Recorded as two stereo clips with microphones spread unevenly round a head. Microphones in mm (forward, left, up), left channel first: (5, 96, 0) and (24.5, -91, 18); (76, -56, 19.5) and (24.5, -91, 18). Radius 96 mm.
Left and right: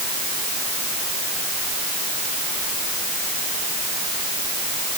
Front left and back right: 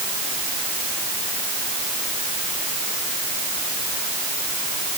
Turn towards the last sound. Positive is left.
No sound to turn to.